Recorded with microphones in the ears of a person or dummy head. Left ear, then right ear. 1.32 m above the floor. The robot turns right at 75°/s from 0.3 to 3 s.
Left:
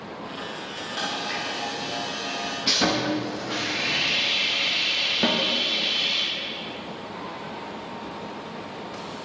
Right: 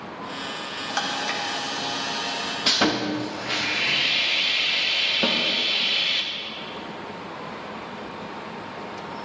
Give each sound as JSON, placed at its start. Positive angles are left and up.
{"t": 0.9, "sound": "a camera shutter", "azimuth_deg": -135, "distance_m": 1.0}
{"t": 2.7, "sound": "sawing", "side_deg": -30, "distance_m": 0.6}
{"t": 5.2, "sound": "a snare drum", "side_deg": -15, "distance_m": 0.9}